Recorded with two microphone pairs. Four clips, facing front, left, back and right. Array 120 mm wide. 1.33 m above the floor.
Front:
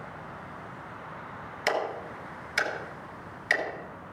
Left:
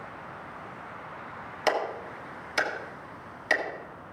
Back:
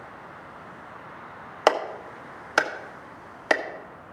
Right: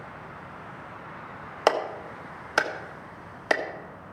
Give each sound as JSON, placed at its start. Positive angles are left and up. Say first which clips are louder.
{"t": 1.7, "sound": "a clap", "louder": "right 3 dB, back 7 dB", "azimuth_deg": -150, "distance_m": 1.4}